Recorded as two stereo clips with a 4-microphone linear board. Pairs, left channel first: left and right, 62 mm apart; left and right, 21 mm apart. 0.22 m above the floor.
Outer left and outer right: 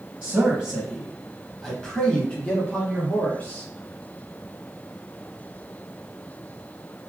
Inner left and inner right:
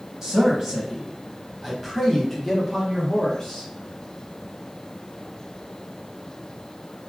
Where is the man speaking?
20° right (ahead or behind), 1.0 m; by 3.7 s 25° left (ahead or behind), 1.7 m.